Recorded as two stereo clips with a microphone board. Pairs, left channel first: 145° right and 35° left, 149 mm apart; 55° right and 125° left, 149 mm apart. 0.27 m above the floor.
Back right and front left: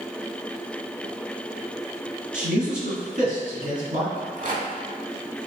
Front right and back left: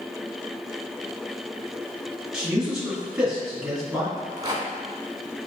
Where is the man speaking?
40° left, 1.9 m.